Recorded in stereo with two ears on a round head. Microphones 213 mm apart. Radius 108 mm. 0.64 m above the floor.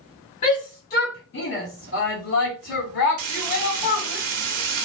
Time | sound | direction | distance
0.4 | a shout | 25° left (ahead or behind) | 2 m
3.2 | frying | 75° right (ahead or behind) | 1.0 m